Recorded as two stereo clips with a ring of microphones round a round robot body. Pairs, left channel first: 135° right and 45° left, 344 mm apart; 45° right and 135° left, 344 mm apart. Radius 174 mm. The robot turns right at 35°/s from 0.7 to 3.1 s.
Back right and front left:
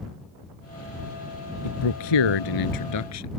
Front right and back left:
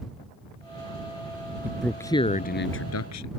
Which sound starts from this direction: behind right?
A man speaking, at 1.6 s.